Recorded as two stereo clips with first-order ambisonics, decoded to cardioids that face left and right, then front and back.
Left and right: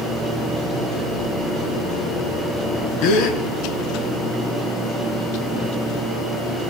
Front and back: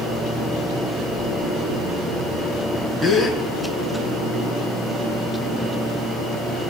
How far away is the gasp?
About 4.5 m.